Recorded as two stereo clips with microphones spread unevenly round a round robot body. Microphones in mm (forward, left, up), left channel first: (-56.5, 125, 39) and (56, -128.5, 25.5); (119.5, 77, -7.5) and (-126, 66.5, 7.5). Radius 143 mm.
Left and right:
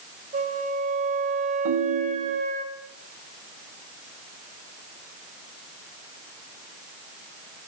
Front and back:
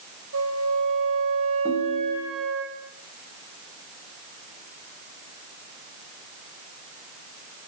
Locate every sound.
0.3 s a flute: 130° right, 4 m
1.6 s a ringtone: 70° right, 2.5 m